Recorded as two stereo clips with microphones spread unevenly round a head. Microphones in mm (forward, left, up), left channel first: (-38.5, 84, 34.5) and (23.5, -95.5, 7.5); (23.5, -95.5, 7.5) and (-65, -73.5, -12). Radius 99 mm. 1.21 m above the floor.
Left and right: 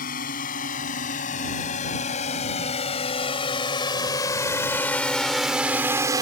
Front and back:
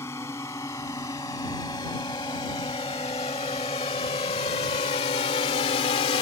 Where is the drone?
60° left; by 6.2 s straight ahead.